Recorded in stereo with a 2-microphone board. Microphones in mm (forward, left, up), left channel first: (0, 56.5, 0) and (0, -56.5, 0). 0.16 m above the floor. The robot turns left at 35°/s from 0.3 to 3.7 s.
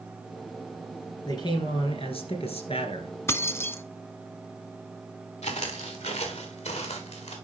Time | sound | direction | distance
1.2 | a man speaking | 135° left | 2 m
3.3 | keys jangling | 25° left (ahead or behind) | 0.7 m
5.4 | footsteps | 80° left | 2 m